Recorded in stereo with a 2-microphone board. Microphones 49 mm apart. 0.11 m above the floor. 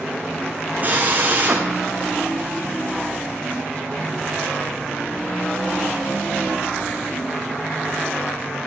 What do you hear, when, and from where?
0.8 s a drill: 35° right (ahead or behind), 3 m